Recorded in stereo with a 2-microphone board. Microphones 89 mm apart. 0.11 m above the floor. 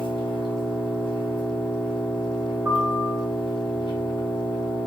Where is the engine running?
75° left (ahead or behind), 1.1 m.